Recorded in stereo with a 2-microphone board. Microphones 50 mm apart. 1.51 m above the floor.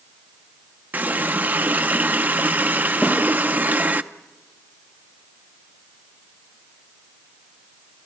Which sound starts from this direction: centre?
A snare drum, at 3.0 s.